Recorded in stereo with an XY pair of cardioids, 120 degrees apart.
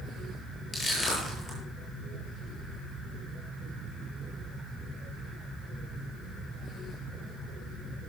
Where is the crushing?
25° left, 8.5 m.